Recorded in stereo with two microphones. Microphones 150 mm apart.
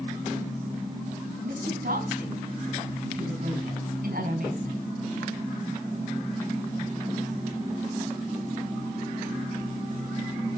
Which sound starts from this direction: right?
A woman speaking, at 1.4 s.